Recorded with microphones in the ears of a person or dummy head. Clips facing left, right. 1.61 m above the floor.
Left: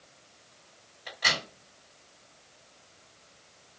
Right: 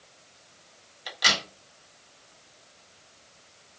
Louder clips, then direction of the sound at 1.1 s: Right 2 dB; 60° right (ahead or behind).